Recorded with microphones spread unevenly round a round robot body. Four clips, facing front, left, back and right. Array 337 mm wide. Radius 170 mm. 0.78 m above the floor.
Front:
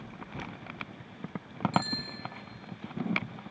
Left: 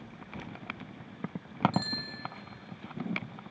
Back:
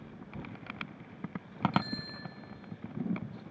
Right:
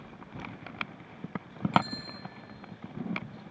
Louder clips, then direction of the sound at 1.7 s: Right 6 dB, front 3 dB; 95° left.